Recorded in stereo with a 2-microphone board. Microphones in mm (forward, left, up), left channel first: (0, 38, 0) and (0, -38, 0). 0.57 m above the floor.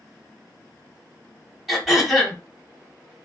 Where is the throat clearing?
Centre (ahead or behind), 1.6 m.